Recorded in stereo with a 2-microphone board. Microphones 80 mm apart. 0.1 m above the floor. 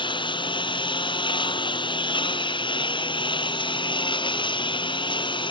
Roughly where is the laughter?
No laughter in this recording.